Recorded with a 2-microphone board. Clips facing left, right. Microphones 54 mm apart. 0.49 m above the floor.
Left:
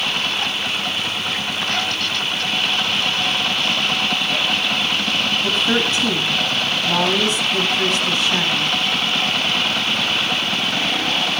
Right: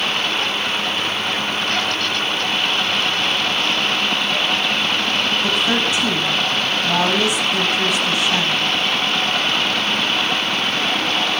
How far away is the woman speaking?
About 3.5 m.